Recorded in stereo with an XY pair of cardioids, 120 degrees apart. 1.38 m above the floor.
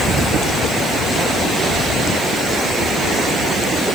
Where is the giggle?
I don't hear a giggle.